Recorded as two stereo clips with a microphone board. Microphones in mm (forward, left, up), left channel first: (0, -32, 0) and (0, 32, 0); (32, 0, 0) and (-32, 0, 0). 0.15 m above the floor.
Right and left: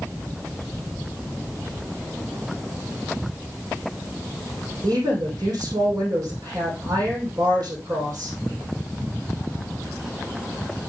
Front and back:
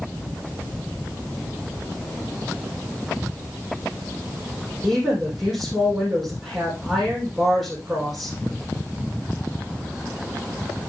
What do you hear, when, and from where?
4.8 s a woman speaking: 90° left, 6 m